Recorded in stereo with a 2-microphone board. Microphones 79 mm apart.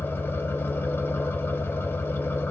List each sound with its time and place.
0.0 s an engine running: 30° left (ahead or behind), 1.2 m